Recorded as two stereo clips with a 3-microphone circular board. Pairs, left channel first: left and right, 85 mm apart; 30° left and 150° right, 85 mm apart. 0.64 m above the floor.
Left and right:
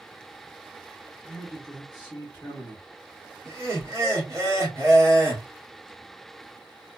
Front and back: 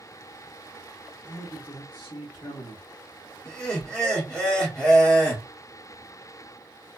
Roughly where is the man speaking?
Ahead.